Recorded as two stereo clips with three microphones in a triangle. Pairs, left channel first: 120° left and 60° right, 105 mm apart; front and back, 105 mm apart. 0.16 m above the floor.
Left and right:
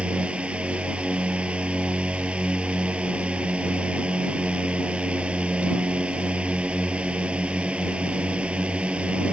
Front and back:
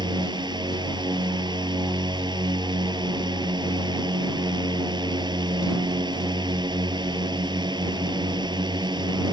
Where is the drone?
140° right.